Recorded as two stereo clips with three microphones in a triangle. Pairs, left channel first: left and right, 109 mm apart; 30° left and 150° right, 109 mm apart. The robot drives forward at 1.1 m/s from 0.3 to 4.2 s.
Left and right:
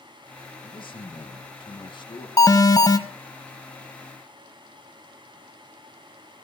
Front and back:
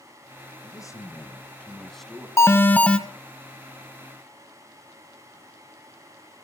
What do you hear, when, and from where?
0.6 s a man speaking: 70° left, 2.5 m; by 2.3 s 125° left, 2.5 m
2.4 s an alarm: 70° left, 1.9 m; by 3.0 s 105° left, 1.9 m